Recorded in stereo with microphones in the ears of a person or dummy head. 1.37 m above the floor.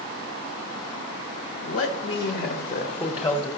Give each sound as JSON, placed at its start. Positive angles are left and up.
{"t": 1.6, "sound": "a man speaking", "side_deg": 75, "distance_m": 1.0}